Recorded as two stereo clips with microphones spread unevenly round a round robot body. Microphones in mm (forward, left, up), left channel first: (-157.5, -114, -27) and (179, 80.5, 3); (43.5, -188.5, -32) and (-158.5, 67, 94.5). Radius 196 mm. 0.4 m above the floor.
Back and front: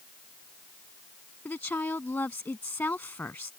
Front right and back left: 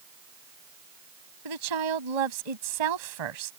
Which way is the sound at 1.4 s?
125° left.